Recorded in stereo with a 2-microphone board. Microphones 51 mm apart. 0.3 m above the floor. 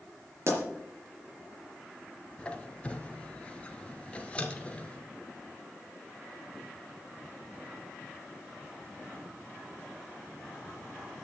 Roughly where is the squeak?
Centre.